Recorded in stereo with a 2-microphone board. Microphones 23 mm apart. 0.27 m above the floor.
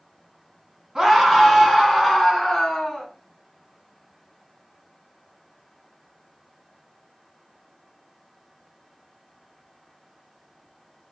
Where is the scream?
20° right (ahead or behind), 2.5 m; by 3.1 s 5° left (ahead or behind), 3 m.